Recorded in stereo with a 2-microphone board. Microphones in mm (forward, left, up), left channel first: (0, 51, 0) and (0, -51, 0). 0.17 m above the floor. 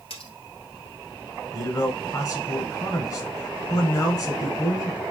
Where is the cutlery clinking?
70° left (ahead or behind), 1.6 m.